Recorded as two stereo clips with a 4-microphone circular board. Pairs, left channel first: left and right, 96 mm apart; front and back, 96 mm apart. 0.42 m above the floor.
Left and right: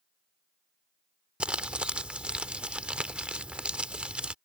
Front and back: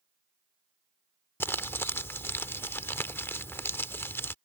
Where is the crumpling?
25° right.